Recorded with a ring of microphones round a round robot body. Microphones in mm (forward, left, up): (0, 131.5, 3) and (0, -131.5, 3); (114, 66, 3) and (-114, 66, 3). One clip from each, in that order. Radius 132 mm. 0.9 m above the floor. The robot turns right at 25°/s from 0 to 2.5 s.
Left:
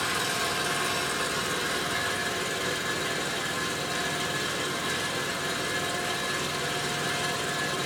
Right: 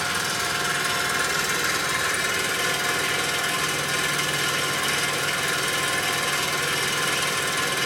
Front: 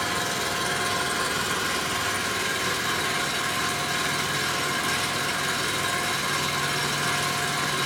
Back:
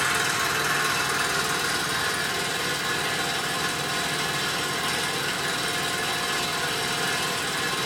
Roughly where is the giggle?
I don't hear a giggle.